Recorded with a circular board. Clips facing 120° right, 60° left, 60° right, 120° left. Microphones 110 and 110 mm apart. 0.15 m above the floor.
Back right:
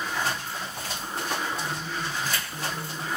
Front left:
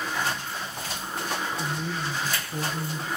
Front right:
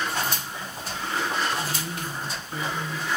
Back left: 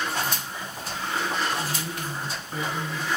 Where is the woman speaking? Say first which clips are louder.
Front left 1 dB, even; 35° left, 4.5 m.